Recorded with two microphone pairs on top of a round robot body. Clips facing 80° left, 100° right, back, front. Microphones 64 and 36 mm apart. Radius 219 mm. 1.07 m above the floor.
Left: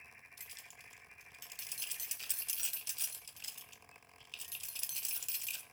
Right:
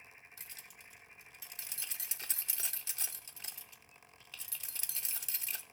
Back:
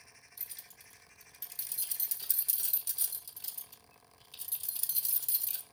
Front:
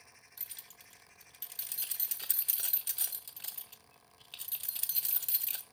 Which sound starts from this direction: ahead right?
Keys jangling, at 0.4 s.